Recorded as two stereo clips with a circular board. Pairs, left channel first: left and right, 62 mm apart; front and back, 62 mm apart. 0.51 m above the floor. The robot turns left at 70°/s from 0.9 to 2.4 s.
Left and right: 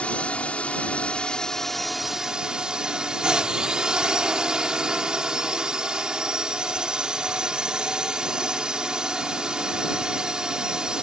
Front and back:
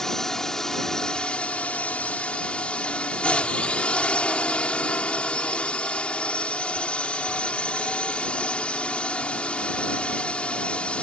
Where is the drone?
70° left; by 11.1 s 35° right.